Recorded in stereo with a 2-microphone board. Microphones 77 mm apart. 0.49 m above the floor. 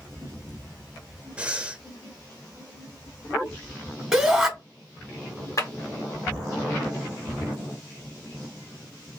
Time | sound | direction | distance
1.4 | breathing | 15° right (ahead or behind) | 0.6 m
4.1 | a shout | 10° right (ahead or behind) | 1.1 m
5.6 | a clap | 45° left (ahead or behind) | 1.0 m